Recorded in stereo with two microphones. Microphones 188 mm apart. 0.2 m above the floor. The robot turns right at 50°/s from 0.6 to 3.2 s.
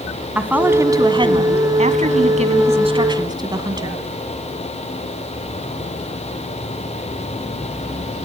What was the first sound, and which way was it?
A woman speaking, 165° right.